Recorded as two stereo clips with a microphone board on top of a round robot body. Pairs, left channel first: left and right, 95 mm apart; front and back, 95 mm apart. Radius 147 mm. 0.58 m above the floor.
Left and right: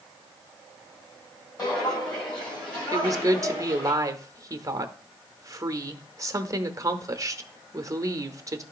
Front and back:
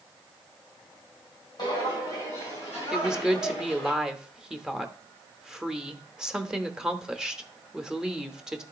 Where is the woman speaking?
100° right, 0.9 m.